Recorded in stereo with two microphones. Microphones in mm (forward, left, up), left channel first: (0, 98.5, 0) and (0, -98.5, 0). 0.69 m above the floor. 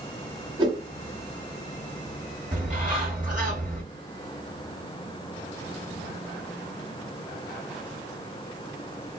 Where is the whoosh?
25° right (ahead or behind), 1.3 m.